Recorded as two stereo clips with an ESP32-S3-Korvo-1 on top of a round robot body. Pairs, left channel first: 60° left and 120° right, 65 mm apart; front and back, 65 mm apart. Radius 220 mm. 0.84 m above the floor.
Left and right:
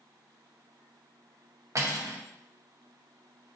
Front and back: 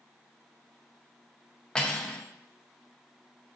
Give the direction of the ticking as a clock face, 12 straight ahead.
I don't hear ticking.